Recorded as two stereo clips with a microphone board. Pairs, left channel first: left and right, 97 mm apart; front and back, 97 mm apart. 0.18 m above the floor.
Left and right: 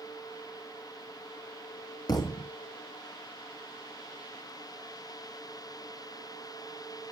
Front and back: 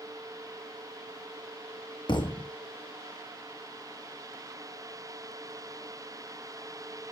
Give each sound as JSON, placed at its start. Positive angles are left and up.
{"t": 2.1, "sound": "a thud", "azimuth_deg": 40, "distance_m": 1.5}